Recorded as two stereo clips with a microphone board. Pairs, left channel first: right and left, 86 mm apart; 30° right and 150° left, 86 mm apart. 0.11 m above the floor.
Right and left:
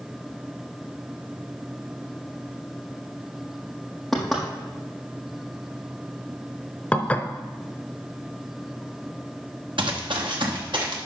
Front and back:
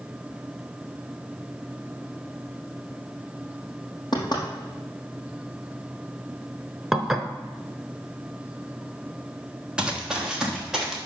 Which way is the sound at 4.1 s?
5° right.